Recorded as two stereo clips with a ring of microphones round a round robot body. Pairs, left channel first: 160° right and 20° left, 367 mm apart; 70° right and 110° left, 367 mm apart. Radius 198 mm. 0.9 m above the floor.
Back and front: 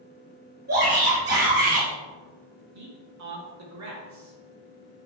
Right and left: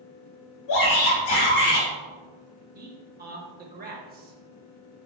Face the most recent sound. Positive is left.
turn(degrees=50)